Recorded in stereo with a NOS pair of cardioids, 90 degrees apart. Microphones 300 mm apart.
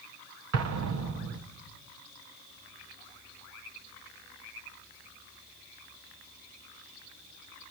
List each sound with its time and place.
0.5 s an explosion: 60° right, 1.8 m